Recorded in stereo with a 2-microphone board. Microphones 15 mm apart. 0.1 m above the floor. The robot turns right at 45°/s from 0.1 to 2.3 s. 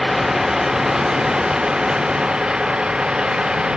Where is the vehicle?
20° right (ahead or behind); by 3.8 s 75° right (ahead or behind).